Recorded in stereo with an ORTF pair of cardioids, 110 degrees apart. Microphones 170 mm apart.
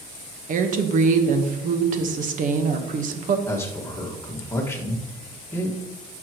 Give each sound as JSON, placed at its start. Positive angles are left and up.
{"t": 0.5, "sound": "a woman speaking", "azimuth_deg": -50, "distance_m": 1.3}
{"t": 3.5, "sound": "a man speaking", "azimuth_deg": 15, "distance_m": 1.8}